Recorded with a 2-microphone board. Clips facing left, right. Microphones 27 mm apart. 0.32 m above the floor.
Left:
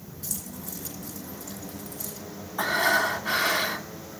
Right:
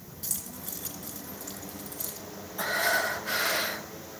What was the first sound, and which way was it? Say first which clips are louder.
Keys jangling: left 2 dB; 25° right (ahead or behind).